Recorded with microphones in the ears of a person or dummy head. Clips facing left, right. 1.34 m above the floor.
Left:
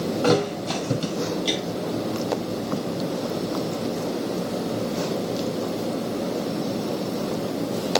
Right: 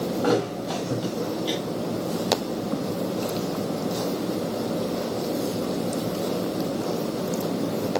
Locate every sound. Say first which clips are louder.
0.2 s a thud: left 3 dB; 35° left (ahead or behind), 2.5 m